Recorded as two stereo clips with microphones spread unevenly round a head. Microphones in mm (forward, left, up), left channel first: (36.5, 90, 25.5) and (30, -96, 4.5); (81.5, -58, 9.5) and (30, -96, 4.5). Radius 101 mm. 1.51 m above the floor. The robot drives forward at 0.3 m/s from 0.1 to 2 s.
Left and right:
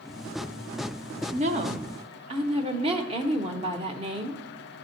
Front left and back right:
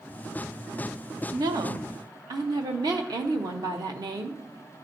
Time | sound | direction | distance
1.3 | a woman speaking | 145° right | 0.5 m